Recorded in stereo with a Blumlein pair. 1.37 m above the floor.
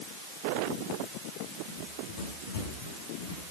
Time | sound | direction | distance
1.7 | running footsteps | 50° left | 5.5 m